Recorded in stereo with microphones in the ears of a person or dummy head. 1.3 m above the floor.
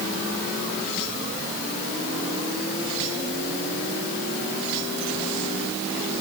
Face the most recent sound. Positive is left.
No sound to turn to.